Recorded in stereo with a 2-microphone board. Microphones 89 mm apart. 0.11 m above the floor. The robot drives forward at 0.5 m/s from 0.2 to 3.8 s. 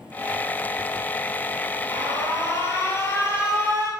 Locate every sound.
1.9 s an alarm: 40° left (ahead or behind), 2 m; by 3.9 s 30° left (ahead or behind), 2.5 m